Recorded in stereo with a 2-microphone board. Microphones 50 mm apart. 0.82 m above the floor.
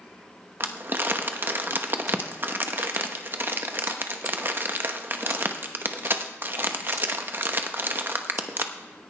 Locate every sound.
0.6 s crumpling: 45° right (ahead or behind), 1.0 m